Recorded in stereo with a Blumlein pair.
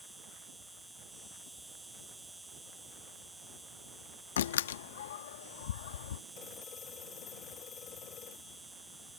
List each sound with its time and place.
0.0 s an insect: 10° right
4.4 s a door slam: 60° left
6.3 s a phone ringing: 30° left